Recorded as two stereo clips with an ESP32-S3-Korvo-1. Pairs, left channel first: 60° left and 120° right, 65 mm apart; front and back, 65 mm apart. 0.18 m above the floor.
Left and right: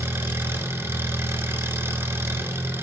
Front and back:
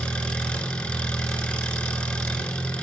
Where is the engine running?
75° right, 1.0 m.